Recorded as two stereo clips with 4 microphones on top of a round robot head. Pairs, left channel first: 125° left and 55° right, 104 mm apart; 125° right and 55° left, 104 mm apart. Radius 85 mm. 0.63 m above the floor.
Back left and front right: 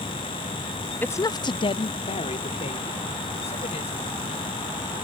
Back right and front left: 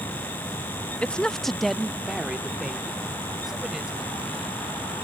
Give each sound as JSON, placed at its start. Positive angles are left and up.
{"t": 1.0, "sound": "a woman speaking", "azimuth_deg": 175}